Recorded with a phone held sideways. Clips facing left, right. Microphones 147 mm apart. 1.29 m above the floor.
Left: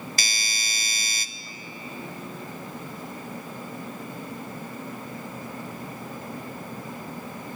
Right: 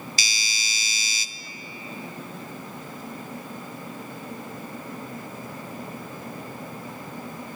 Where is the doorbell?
55° left (ahead or behind), 0.7 m.